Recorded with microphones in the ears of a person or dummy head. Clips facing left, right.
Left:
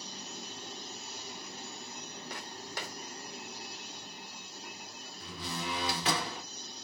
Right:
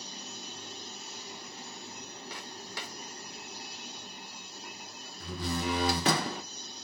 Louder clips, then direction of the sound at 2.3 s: Left 2 dB; 45° left (ahead or behind).